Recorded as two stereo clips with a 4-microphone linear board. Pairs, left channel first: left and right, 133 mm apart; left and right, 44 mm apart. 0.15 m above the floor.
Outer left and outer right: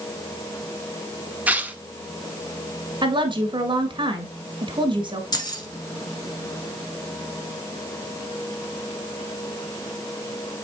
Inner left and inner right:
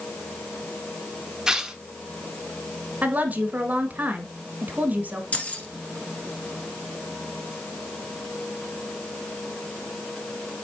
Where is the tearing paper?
10° right (ahead or behind), 0.7 m.